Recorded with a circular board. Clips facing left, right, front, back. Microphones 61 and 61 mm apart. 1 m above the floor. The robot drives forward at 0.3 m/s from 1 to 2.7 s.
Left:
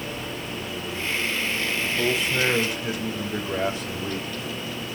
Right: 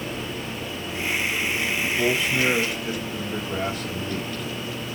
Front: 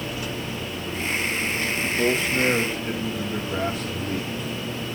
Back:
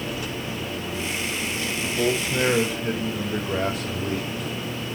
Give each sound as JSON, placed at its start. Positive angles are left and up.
{"t": 1.8, "sound": "a man speaking", "azimuth_deg": 155, "distance_m": 4.5}